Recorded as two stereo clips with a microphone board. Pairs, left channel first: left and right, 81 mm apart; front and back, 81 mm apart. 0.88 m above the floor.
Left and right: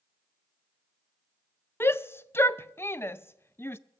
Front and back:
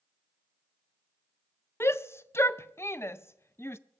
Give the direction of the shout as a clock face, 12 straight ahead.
11 o'clock.